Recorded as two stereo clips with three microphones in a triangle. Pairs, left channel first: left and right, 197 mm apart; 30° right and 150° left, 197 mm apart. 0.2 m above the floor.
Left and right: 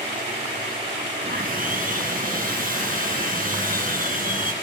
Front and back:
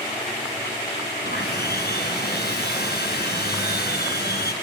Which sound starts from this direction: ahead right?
Sawing, at 1.2 s.